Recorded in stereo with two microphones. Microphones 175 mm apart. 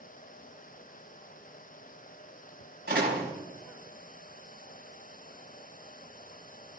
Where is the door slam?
75° right (ahead or behind), 5 m.